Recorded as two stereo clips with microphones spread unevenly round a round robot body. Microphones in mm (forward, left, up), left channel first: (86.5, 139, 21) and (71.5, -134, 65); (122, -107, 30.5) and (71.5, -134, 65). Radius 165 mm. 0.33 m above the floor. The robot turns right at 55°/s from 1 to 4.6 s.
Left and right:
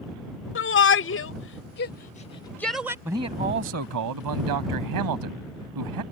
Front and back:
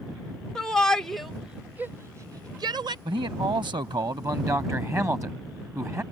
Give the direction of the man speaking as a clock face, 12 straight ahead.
6 o'clock.